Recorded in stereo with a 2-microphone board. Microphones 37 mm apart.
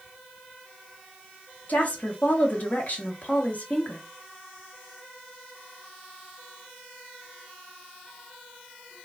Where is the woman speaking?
45° left (ahead or behind), 1.0 m.